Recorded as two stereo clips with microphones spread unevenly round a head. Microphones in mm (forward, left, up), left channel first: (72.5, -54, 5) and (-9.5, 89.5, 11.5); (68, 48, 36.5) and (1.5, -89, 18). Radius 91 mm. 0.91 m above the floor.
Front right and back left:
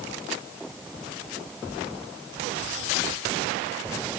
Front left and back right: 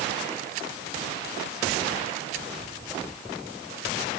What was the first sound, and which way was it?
Only background noise.